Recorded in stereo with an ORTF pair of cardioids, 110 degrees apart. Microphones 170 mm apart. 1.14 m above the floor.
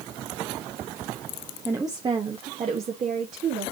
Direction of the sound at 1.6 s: 10° right.